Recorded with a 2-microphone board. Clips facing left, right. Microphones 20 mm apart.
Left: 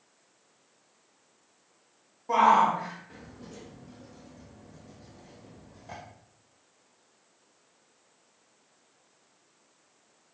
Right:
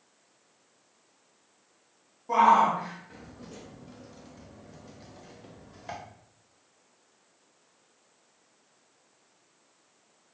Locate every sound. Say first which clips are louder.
2.3 s a shout: right 1 dB; 25° left (ahead or behind), 1.7 m; by 6.0 s 50° right (ahead or behind), 2.5 m